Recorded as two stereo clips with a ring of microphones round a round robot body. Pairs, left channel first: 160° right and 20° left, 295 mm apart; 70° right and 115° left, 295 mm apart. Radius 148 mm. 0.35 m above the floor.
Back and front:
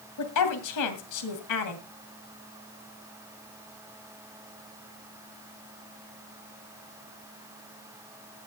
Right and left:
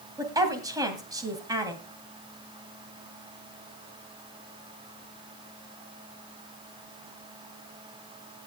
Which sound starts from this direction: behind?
A woman speaking, at 0.2 s.